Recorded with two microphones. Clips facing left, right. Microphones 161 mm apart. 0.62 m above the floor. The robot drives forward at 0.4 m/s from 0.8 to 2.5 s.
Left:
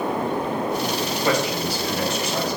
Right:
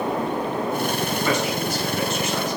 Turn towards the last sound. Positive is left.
turn(degrees=35)  # may be behind; listen again after turning